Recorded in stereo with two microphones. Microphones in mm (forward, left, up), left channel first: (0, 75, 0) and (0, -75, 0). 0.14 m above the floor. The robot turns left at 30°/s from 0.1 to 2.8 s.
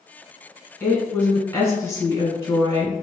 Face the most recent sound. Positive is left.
turn(degrees=20)  # may be behind; listen again after turning